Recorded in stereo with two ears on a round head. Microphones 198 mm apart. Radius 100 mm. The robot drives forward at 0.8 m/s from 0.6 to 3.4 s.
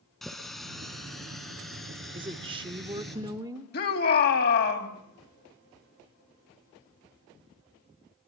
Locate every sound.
0.2 s a running tap: centre (ahead or behind), 3.5 m
2.1 s a woman speaking: 20° right (ahead or behind), 0.9 m; by 3.7 s 15° right (ahead or behind), 1.2 m
3.7 s a shout: 50° left (ahead or behind), 4 m